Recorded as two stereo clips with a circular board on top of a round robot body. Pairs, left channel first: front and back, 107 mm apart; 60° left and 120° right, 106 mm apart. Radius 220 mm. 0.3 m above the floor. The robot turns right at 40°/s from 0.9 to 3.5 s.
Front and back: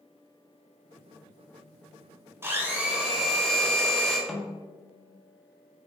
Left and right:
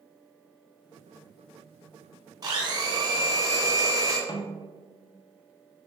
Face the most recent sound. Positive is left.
turn(degrees=85)